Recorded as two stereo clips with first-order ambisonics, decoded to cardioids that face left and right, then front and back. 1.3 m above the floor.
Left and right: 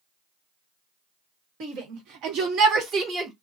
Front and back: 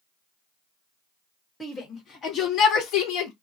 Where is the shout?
75° right, 1.4 m; by 3.3 s 20° right, 0.9 m.